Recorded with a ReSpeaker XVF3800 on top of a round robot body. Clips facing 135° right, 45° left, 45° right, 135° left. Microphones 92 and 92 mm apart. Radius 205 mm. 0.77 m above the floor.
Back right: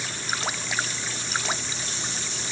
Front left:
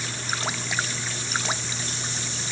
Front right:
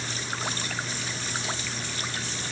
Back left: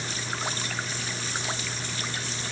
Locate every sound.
Only background noise.